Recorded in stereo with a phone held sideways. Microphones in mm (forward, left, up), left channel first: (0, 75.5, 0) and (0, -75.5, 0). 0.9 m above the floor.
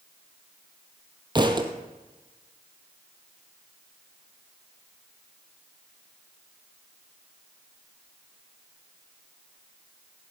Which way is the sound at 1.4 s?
30° right (ahead or behind).